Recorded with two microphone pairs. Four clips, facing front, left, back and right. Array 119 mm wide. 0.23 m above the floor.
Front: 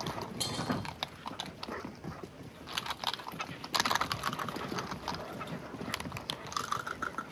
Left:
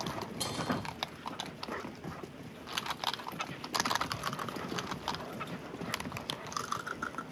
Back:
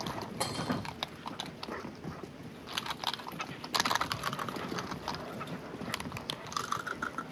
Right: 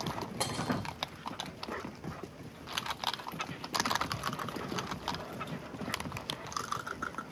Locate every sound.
0.4 s breaking glass: 130° right, 4.5 m